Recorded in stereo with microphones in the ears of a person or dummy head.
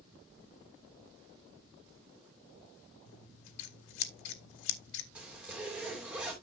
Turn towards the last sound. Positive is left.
turn(degrees=-5)  # may be behind; listen again after turning